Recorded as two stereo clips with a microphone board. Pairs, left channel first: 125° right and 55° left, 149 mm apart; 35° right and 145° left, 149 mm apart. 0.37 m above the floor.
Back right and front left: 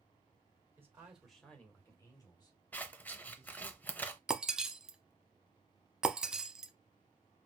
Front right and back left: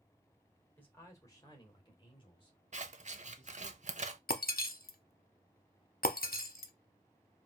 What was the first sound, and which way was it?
A man speaking, 20° left.